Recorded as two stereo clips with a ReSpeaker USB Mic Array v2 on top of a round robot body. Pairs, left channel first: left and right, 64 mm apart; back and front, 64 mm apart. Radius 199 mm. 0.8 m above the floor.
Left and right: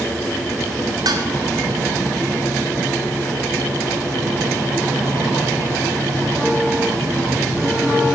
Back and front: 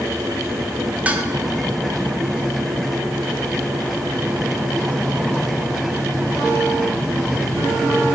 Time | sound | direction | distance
1.1 | dishes clattering | 70° right | 1.5 m